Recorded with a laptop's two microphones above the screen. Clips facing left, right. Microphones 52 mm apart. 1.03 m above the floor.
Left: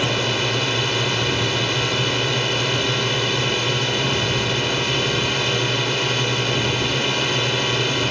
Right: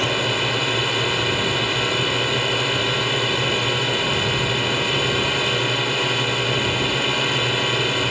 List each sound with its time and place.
0.0 s a drone: 5° right (ahead or behind)